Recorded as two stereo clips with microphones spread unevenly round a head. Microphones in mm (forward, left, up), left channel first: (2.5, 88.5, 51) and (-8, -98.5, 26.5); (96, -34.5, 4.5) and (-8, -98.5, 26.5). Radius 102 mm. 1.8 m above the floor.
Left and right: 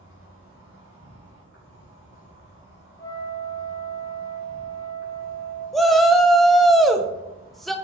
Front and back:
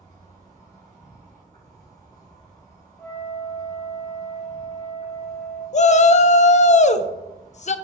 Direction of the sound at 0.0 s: 95° left.